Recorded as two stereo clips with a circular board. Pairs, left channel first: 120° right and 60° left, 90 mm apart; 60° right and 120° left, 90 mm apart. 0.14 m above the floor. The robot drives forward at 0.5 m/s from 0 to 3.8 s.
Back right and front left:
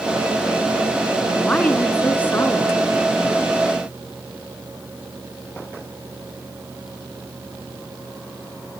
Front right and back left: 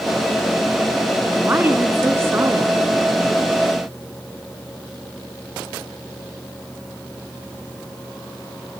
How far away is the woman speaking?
About 1.4 m.